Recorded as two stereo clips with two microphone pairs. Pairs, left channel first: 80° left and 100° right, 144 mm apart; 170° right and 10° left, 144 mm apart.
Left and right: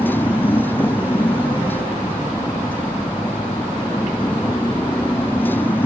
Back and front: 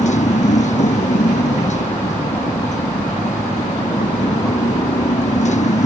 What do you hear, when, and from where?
0.0 s a motorcycle: 155° left